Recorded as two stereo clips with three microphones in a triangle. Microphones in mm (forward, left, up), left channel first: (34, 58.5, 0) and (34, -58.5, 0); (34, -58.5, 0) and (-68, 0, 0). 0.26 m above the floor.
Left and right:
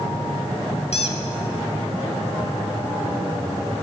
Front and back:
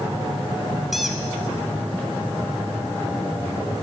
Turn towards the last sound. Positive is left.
turn(degrees=65)